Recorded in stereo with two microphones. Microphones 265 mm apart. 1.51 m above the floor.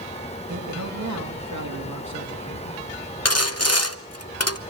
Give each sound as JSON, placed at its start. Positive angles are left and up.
{"t": 0.5, "sound": "a man speaking", "side_deg": -85, "distance_m": 3.0}
{"t": 3.2, "sound": "sawing", "side_deg": 60, "distance_m": 0.8}